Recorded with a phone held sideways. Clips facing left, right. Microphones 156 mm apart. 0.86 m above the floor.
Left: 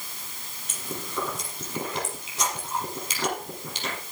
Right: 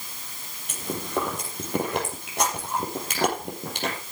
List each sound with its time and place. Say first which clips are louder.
0.7 s chewing: right 6 dB; 65° right (ahead or behind), 5 m